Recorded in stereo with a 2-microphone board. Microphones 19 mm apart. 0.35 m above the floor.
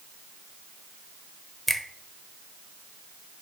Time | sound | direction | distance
1.7 | a finger snap | 5° left (ahead or behind) | 0.8 m